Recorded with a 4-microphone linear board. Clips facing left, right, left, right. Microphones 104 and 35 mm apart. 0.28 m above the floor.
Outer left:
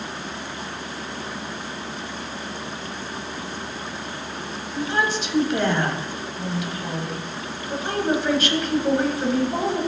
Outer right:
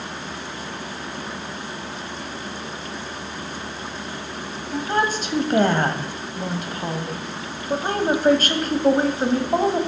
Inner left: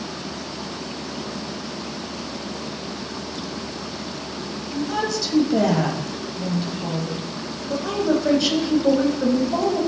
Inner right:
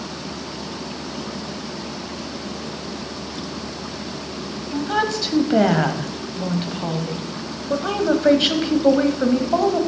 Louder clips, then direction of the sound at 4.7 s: Outer right 2 dB, inner right 3 dB; 45° right (ahead or behind).